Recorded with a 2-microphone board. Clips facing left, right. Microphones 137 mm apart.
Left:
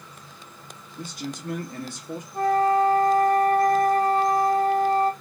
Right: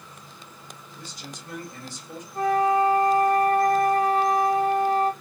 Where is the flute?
30° left (ahead or behind), 2.0 m.